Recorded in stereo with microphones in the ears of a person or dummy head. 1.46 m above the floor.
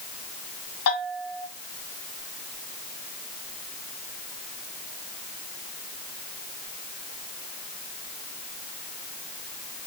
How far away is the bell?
About 3.5 m.